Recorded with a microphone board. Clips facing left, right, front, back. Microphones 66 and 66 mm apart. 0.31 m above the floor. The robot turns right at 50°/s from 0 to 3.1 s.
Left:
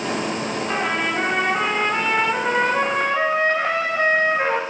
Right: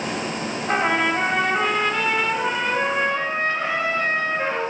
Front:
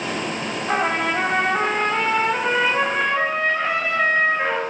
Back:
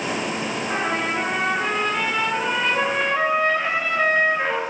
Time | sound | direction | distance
0.7 | a trumpet | 30° right | 0.5 m